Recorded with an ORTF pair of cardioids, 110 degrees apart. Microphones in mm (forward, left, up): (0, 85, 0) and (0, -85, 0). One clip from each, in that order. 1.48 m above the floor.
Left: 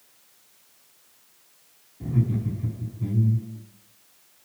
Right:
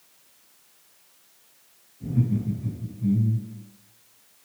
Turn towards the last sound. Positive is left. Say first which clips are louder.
# right 1 dB
turn(degrees=65)